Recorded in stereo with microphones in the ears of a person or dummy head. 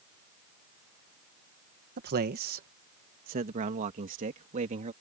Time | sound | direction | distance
2.0 | a man speaking | 45° right (ahead or behind) | ?